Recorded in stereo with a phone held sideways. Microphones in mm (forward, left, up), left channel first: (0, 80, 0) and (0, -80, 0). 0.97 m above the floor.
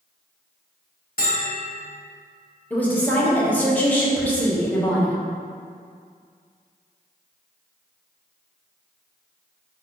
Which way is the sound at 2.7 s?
10° left (ahead or behind).